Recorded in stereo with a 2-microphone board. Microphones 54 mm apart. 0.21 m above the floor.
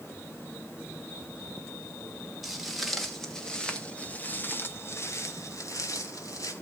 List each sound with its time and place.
2.4 s footsteps: 5° right (ahead or behind), 2.5 m; by 6.5 s 85° left, 1.9 m